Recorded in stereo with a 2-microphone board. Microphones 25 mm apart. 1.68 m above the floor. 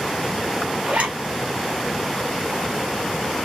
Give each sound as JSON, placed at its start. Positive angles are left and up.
{"t": 0.8, "sound": "a zipper", "side_deg": -60, "distance_m": 2.5}